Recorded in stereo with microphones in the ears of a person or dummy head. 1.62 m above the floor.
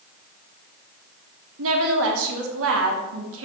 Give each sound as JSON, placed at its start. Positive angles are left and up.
{"t": 1.6, "sound": "a woman speaking", "side_deg": -70, "distance_m": 1.2}